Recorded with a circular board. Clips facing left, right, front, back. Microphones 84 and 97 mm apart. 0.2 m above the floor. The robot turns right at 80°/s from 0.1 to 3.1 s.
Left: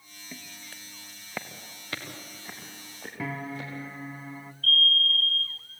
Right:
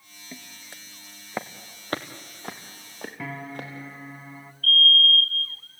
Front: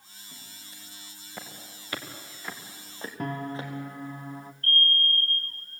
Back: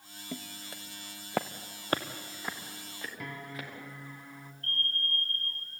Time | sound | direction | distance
0.3 | footsteps | 170° right | 1.4 m
3.2 | a piano | straight ahead | 0.6 m
4.6 | a fire alarm | 95° left | 2.5 m